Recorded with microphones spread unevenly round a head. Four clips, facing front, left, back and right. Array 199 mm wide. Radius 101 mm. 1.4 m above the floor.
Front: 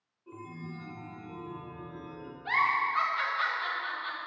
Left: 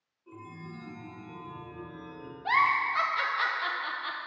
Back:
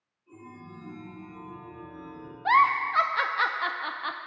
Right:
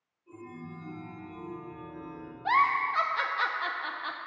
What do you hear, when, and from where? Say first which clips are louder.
0.3 s a chime: right 1 dB, front 3 dB; 30° left, 2.5 m
2.5 s a giggle: right 1 dB, back 7 dB; 170° right, 0.6 m